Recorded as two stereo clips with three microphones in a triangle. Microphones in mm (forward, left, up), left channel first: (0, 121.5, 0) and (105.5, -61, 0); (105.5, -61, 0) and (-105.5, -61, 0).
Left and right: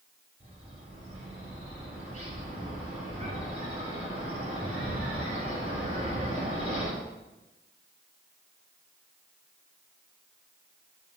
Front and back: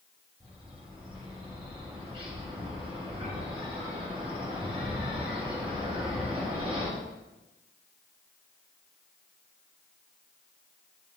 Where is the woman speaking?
No woman speaking in this recording.